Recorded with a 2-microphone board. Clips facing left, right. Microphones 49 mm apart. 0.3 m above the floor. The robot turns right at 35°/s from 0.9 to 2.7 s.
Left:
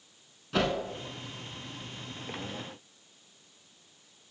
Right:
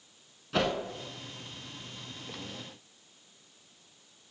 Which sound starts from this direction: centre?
A whoosh, at 0.5 s.